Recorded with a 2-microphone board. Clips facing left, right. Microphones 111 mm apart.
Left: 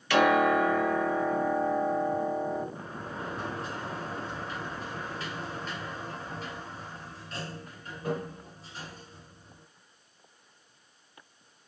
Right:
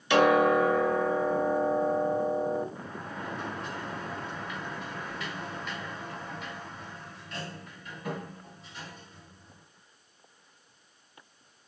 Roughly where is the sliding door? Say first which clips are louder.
Even; left.